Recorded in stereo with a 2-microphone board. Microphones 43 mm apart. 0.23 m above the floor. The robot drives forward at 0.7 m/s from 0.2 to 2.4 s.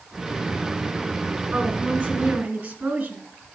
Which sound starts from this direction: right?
A woman speaking, at 1.5 s.